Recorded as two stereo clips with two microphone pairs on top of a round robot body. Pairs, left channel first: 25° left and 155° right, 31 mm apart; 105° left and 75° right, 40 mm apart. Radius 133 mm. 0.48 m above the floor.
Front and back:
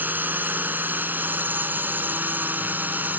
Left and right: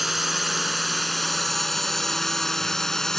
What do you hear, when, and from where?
0.0 s a drone: 160° right; by 3.2 s 175° right